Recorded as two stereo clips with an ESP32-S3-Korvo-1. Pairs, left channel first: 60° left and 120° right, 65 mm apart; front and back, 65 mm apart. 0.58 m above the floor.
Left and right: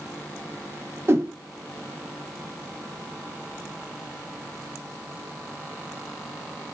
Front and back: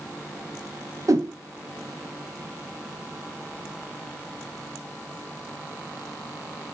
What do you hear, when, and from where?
1.1 s a whoosh: 160° right, 0.7 m